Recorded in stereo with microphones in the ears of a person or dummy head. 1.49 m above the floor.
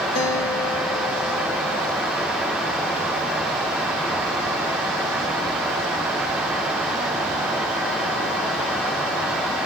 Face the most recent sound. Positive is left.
turn(degrees=50)  # may be behind; listen again after turning